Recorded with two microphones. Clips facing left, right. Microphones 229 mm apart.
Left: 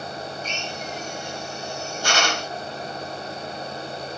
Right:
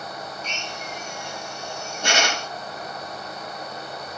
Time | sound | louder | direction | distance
0.4 | a drill | left 3 dB | 20° right (ahead or behind) | 5.5 m